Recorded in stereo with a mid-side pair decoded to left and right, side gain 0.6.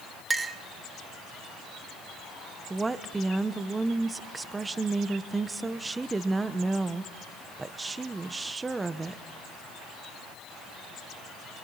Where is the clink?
20° right, 1.3 m.